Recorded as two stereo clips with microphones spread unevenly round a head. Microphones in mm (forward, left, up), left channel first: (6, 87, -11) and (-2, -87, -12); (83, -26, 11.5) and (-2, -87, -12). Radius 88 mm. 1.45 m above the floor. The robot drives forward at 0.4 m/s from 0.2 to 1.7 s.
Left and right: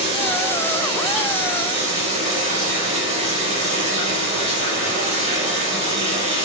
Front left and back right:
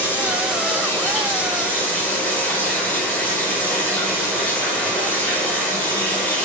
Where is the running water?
35° right, 6 m; by 6.5 s 40° right, 5.5 m.